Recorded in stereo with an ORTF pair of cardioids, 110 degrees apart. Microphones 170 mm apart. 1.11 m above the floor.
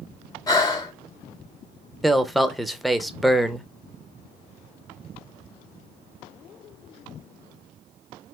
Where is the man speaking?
Straight ahead, 0.6 m.